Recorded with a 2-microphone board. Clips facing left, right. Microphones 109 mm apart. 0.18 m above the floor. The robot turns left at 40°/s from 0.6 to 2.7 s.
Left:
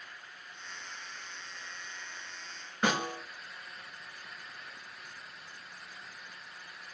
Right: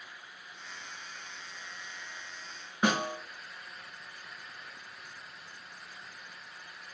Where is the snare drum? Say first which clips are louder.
Right 2 dB; 10° right (ahead or behind), 1.2 m.